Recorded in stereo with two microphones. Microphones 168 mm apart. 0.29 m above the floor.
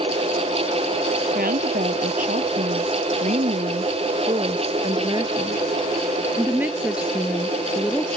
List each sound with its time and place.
1.4 s a woman speaking: 60° right (ahead or behind); by 8.2 s 5° left (ahead or behind)